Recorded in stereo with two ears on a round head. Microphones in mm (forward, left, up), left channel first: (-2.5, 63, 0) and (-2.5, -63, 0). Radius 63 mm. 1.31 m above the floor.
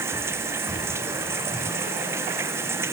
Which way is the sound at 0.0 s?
20° right (ahead or behind).